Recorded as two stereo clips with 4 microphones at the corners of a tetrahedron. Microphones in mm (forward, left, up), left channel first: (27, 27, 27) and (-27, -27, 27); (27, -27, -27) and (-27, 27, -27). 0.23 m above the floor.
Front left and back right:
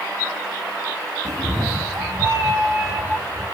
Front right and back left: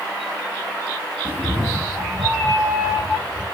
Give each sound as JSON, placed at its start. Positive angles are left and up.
{"t": 1.2, "sound": "a cat meowing", "azimuth_deg": -165, "distance_m": 0.5}